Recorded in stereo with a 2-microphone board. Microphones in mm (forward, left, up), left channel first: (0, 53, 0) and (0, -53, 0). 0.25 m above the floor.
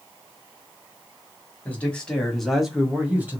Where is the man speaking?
15° left (ahead or behind), 1.5 m; by 3.4 s 20° right (ahead or behind), 1.2 m.